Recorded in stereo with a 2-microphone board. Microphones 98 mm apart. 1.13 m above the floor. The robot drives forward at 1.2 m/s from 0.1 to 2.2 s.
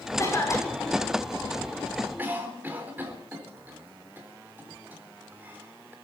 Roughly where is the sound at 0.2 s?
Left.